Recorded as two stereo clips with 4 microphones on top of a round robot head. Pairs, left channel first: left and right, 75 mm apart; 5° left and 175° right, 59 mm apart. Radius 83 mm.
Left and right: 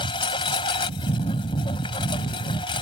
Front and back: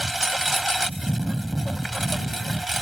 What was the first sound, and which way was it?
A lawn mower, 95° left.